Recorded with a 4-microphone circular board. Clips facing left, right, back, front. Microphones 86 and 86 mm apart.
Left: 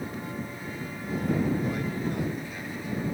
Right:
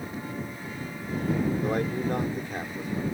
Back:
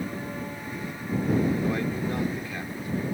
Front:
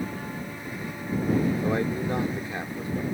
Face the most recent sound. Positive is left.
turn(degrees=-60)